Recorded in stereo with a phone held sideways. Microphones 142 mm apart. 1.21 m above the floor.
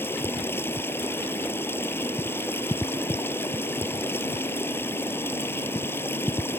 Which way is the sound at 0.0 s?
15° left (ahead or behind).